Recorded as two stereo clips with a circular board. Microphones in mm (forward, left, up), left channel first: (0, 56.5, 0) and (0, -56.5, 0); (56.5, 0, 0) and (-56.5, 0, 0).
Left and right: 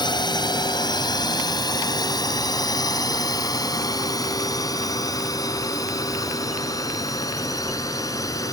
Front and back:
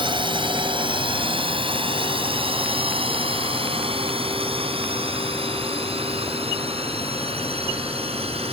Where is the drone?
140° left; by 8.5 s 150° left.